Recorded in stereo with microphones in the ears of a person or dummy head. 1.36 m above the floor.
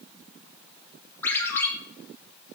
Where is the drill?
No drill in this recording.